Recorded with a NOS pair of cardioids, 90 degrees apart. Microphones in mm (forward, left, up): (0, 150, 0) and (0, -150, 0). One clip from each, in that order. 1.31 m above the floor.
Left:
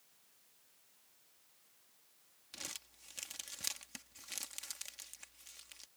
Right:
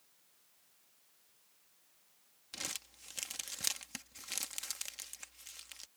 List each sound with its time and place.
2.5 s crumpling: 30° right